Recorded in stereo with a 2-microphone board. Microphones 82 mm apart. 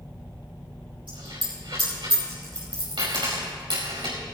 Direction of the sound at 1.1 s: 70° right (ahead or behind).